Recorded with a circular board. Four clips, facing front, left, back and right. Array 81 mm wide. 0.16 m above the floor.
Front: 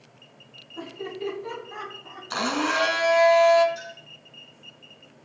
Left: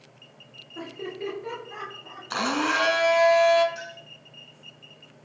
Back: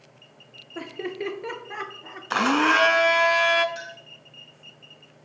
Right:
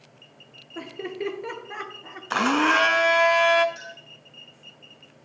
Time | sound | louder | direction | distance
0.8 | laughter | right 2 dB, back 2 dB | 155° right | 2.5 m
2.3 | a blender | right 5 dB, back 5 dB | 140° right | 0.9 m
3.8 | a clink | left 2 dB, back 1 dB | straight behind | 4 m